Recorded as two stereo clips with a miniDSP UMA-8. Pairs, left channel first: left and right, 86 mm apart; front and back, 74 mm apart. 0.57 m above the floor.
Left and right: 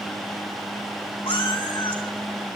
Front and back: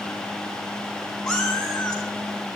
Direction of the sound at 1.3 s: 80° left.